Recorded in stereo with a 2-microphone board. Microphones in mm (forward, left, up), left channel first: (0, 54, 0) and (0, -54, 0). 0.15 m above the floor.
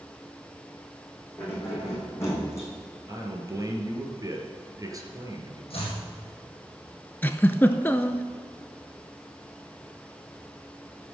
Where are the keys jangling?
25° left (ahead or behind), 5.5 m; by 2.7 s 30° left (ahead or behind), 5 m.